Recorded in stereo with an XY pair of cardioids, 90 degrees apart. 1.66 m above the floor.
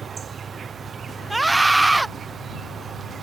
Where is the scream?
20° right.